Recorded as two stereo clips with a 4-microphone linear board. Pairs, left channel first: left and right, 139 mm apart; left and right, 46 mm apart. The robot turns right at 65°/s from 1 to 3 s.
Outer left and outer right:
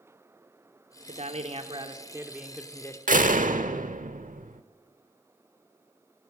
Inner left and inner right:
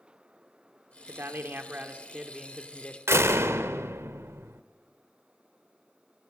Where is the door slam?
70° right (ahead or behind), 1.1 m.